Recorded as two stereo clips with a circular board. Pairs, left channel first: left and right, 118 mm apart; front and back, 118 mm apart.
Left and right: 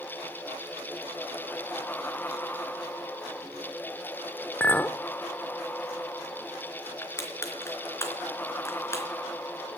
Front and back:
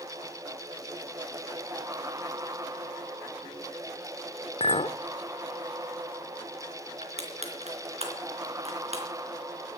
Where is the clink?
15° left, 0.6 m.